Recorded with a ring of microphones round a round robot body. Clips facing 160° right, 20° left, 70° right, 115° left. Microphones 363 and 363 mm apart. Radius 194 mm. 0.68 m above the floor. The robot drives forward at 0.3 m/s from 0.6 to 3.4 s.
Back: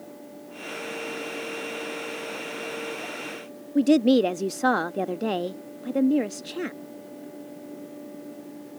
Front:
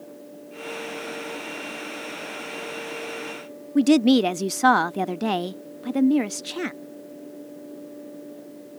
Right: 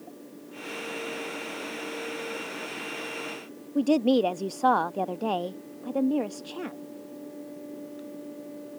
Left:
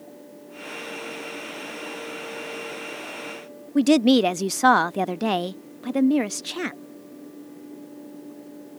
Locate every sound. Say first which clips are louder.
3.8 s a woman speaking: front 2 dB, left 5 dB; 85° left